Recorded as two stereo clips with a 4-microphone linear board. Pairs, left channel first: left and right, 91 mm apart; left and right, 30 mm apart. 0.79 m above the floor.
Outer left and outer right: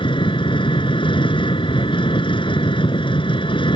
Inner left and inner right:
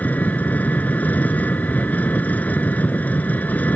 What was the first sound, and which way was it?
An engine running, 65° left (ahead or behind).